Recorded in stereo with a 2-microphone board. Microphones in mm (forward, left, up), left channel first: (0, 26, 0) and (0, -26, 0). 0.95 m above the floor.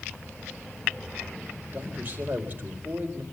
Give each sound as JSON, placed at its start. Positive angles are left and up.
{"t": 1.7, "sound": "a man speaking", "side_deg": -35, "distance_m": 4.5}